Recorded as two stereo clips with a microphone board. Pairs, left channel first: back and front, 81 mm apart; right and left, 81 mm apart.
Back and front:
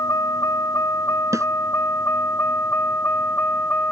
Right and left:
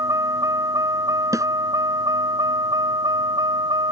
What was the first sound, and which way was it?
A vehicle, 135° left.